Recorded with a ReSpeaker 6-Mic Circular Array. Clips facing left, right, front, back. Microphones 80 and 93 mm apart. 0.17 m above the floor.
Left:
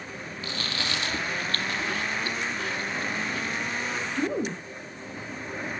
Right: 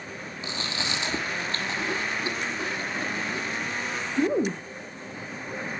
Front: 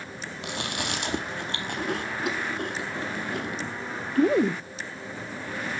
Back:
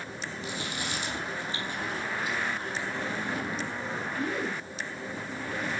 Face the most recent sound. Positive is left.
turn(degrees=-20)